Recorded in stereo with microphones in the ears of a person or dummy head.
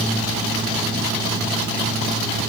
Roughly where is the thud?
I don't hear a thud.